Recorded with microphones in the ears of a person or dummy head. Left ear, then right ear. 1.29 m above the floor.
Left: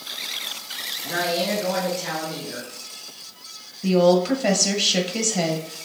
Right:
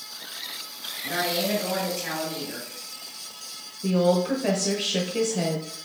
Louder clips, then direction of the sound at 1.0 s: Left 2 dB; 15° right (ahead or behind).